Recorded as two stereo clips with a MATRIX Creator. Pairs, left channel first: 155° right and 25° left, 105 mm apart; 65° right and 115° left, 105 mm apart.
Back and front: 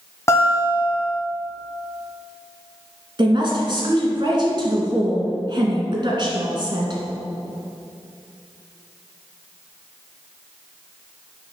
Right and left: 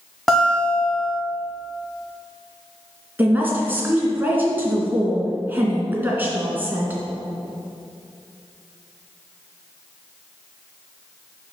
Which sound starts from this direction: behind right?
A guitar, at 0.3 s.